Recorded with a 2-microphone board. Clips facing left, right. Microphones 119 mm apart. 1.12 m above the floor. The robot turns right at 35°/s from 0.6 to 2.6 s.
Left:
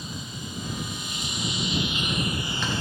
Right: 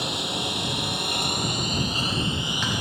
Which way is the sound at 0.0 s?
85° right.